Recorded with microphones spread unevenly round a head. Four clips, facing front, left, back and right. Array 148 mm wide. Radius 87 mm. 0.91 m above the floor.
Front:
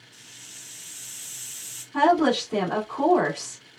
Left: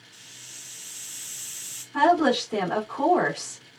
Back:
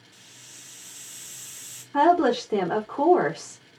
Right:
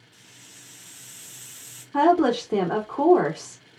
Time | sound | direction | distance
0.1 | a hiss | 155° right | 0.6 m
1.9 | a woman speaking | 125° right | 2.5 m